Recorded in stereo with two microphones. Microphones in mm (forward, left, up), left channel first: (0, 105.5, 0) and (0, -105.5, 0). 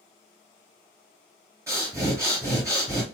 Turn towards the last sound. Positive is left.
turn(degrees=-15)  # may be behind; listen again after turning